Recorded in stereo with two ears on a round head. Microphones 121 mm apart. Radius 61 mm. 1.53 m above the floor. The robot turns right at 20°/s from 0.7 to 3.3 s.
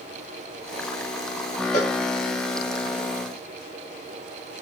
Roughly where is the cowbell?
Left.